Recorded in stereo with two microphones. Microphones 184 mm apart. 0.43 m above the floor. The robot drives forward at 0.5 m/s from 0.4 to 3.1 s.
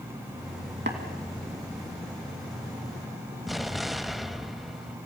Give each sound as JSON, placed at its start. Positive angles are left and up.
{"t": 0.9, "sound": "tapping", "side_deg": -75, "distance_m": 2.5}
{"t": 3.5, "sound": "an explosion", "side_deg": 0, "distance_m": 0.6}